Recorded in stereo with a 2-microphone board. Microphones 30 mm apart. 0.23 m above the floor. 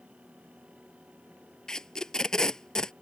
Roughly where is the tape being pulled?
Left.